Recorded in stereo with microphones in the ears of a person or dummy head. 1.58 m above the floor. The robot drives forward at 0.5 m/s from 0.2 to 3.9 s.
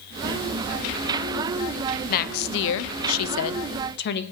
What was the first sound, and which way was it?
A woman speaking, 50° left (ahead or behind).